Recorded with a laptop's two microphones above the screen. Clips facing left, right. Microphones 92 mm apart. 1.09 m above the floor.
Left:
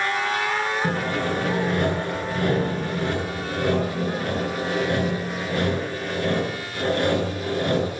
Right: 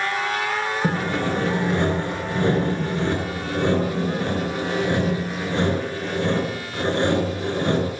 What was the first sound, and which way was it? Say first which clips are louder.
Sawing: right 1 dB; 25° right (ahead or behind).